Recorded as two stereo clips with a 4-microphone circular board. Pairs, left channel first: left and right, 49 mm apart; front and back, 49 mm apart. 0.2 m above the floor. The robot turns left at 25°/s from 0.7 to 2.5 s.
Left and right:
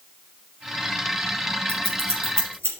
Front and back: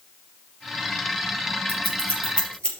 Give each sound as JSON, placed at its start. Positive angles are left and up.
{"t": 1.7, "sound": "scissors", "azimuth_deg": -55, "distance_m": 4.0}